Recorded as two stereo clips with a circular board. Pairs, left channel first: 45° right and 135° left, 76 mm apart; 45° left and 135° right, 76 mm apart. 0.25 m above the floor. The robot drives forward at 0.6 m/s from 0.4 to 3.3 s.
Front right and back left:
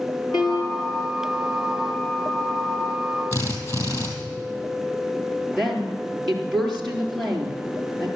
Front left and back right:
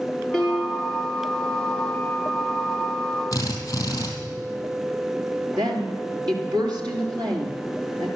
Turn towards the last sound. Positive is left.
turn(degrees=-130)